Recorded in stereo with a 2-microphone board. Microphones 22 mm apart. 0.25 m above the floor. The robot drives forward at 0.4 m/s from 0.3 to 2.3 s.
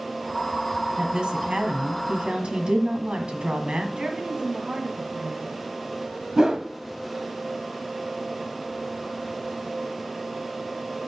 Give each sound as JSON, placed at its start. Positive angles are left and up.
{"t": 1.0, "sound": "a woman speaking", "side_deg": -50, "distance_m": 1.5}
{"t": 4.0, "sound": "a woman speaking", "side_deg": -45, "distance_m": 2.0}
{"t": 6.4, "sound": "a whoosh", "side_deg": -30, "distance_m": 0.8}